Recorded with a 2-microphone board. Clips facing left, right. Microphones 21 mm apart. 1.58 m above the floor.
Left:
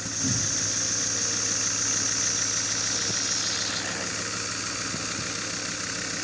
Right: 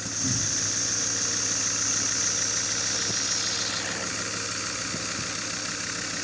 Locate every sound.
0.2 s a cupboard door: 65° left (ahead or behind), 1.2 m